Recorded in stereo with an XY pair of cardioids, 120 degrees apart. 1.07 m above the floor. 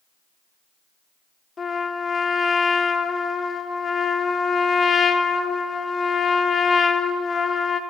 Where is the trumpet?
35° left, 1.2 m.